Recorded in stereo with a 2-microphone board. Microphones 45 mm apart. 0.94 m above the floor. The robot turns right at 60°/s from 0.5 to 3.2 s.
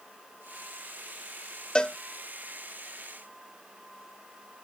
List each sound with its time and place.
1.8 s a cowbell: 20° left (ahead or behind)